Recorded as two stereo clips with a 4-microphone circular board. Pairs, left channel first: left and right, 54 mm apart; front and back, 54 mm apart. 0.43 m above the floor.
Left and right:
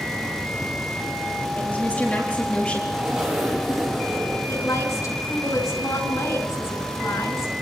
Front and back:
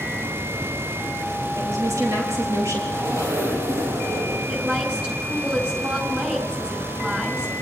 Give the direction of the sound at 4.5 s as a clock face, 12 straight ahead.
8 o'clock.